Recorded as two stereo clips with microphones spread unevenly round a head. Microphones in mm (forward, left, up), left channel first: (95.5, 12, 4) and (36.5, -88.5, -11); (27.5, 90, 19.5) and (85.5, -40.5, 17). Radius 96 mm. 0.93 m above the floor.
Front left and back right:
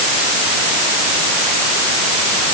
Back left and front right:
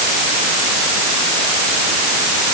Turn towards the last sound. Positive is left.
No sound to turn to.